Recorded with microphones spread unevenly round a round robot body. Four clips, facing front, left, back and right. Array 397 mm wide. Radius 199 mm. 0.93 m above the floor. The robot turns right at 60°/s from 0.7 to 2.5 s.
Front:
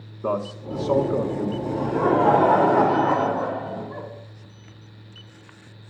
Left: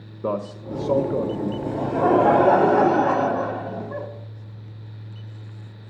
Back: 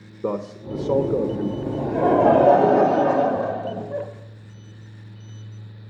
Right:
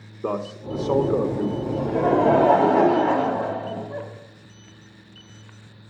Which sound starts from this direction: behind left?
Laughter, at 1.7 s.